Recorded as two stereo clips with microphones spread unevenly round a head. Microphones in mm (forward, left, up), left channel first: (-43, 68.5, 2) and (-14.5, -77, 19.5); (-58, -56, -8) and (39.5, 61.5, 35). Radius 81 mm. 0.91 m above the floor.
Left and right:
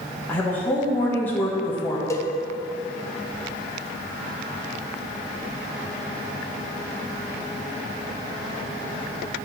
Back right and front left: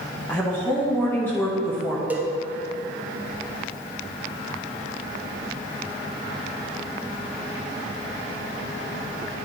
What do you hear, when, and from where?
0.3 s a woman speaking: 170° left, 0.9 m
2.1 s a cowbell: 145° left, 0.7 m